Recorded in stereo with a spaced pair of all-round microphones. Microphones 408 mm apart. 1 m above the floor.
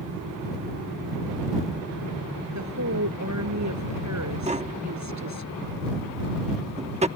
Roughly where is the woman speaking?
Right.